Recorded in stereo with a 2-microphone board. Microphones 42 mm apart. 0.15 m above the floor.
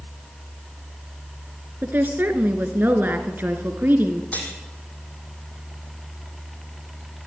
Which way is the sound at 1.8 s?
50° right (ahead or behind).